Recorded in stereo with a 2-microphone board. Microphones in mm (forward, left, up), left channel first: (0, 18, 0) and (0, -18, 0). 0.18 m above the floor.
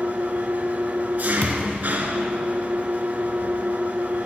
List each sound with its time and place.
0.0 s an engine running: 55° right (ahead or behind), 0.9 m
1.4 s a thud: 35° left (ahead or behind), 0.8 m